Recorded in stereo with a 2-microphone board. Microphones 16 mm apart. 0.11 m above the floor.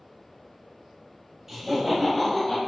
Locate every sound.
1.5 s laughter: 20° right (ahead or behind), 1.6 m; by 2.6 s 30° left (ahead or behind), 1.6 m